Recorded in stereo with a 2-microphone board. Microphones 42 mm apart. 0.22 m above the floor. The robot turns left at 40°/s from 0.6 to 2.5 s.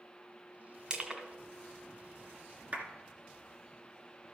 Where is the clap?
40° right (ahead or behind), 2.0 m.